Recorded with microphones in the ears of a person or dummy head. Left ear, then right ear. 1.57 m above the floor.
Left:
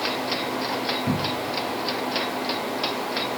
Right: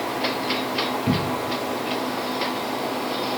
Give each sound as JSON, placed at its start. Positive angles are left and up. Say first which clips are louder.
{"t": 1.1, "sound": "a cupboard door", "louder": "right 2 dB", "side_deg": -15, "distance_m": 0.5}